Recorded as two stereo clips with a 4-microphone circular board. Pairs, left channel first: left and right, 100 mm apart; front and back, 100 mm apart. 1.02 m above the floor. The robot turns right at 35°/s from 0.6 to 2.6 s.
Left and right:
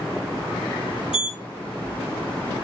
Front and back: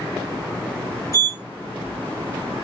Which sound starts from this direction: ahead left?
A sliding door, at 1.1 s.